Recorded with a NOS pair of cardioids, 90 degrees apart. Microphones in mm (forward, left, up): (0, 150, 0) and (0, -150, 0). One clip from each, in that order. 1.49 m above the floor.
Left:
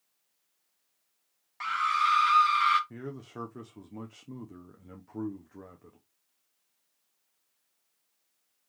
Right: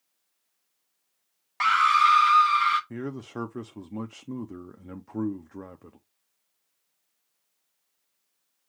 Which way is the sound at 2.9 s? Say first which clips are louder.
Right 6 dB; 35° right.